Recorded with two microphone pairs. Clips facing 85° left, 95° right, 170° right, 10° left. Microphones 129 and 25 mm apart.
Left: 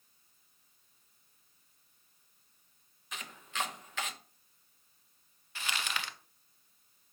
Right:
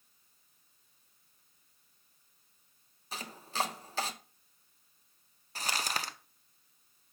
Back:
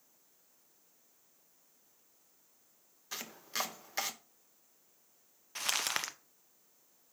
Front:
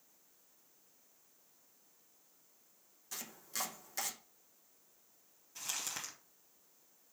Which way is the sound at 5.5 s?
145° right.